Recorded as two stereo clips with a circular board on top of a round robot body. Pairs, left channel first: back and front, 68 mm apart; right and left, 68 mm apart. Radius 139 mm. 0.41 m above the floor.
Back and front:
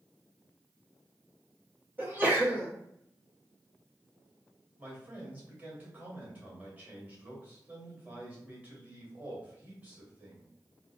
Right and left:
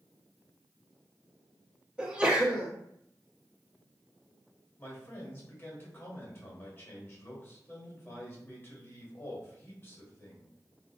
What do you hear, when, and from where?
2.0 s a sneeze: 30° left, 1.3 m
4.8 s a man speaking: 55° right, 1.9 m